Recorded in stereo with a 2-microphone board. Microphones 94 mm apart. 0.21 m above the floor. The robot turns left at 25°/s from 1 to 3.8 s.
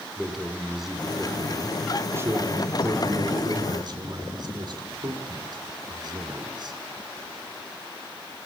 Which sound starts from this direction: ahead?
A man speaking, at 0.2 s.